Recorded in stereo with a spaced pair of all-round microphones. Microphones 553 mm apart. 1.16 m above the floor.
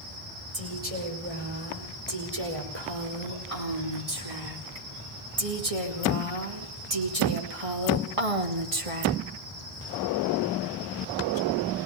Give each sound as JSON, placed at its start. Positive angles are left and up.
{"t": 0.5, "sound": "a woman speaking", "side_deg": -75, "distance_m": 6.5}